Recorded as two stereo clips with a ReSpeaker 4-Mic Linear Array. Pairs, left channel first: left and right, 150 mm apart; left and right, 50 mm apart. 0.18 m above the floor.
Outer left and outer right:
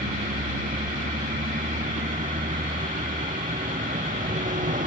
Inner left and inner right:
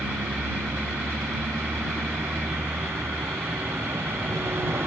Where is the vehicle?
60° right (ahead or behind).